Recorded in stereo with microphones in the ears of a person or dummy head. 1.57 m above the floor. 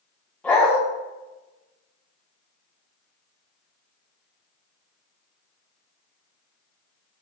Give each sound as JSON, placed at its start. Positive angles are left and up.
{"t": 0.4, "sound": "a dog barking", "side_deg": 10, "distance_m": 3.5}